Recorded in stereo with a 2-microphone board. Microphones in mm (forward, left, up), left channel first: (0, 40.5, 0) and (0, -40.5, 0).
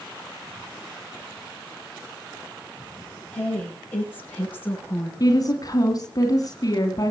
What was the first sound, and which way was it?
A woman speaking, 15° left (ahead or behind).